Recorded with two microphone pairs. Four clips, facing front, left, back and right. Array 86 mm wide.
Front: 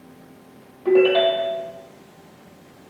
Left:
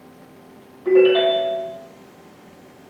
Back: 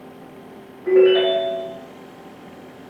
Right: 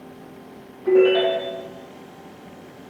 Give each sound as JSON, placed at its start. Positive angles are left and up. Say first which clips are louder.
{"t": 0.8, "sound": "a ringtone", "louder": "left 2 dB, back 2 dB", "azimuth_deg": -5, "distance_m": 2.0}